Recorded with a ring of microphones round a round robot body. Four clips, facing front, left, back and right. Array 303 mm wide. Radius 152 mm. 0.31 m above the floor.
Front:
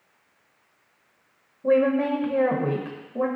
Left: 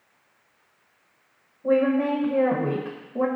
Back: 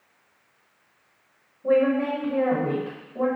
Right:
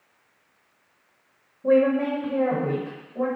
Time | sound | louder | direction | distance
1.6 | a woman speaking | right 1 dB, even | 40° right | 1.2 m